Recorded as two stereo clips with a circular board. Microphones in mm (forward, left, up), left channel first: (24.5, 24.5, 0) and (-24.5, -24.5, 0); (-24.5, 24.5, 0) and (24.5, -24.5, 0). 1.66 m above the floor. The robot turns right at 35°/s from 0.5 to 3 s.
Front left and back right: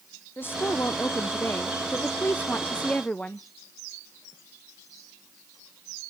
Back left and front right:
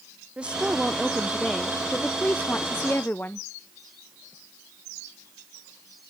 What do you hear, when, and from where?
0.4 s a woman speaking: 20° left, 0.6 m; by 3.5 s 105° left, 0.6 m